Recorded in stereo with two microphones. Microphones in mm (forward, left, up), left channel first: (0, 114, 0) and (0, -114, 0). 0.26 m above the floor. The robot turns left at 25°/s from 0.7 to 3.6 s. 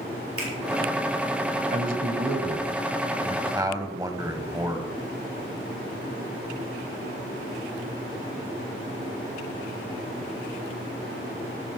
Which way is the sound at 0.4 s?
80° right.